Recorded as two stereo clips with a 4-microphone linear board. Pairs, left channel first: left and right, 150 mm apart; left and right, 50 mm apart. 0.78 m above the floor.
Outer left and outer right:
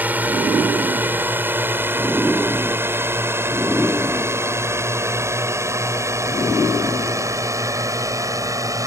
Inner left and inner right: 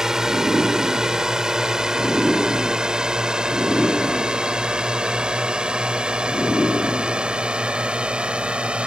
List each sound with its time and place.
0.0 s a drone: 10° right (ahead or behind); by 8.9 s 20° right (ahead or behind)